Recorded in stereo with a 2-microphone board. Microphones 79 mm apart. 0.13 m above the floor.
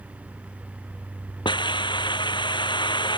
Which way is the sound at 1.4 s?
75° left (ahead or behind).